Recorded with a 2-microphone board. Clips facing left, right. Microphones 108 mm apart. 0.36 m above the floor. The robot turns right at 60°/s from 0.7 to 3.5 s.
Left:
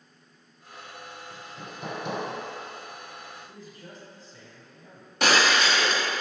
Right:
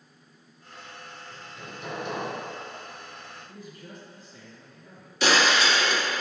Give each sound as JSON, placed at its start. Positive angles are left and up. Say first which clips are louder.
{"t": 1.3, "sound": "hammering", "louder": "left 1 dB", "azimuth_deg": 20, "distance_m": 1.3}
{"t": 3.5, "sound": "a man speaking", "louder": "right 1 dB", "side_deg": 30, "distance_m": 1.6}
{"t": 5.2, "sound": "breaking glass", "louder": "even", "side_deg": 55, "distance_m": 1.7}